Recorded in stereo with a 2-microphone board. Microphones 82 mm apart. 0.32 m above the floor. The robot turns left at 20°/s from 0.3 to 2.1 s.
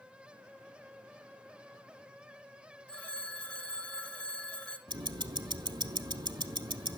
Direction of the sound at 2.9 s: 15° left (ahead or behind).